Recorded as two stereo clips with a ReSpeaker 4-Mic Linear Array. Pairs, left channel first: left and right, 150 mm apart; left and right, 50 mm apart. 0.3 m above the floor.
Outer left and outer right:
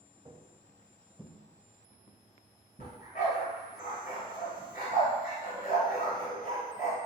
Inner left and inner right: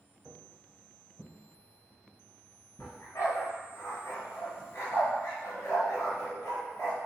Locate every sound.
0.2 s footsteps: 30° right (ahead or behind), 0.7 m; by 3.0 s 70° left (ahead or behind), 1.1 m
2.8 s a dog barking: 75° left (ahead or behind), 1.3 m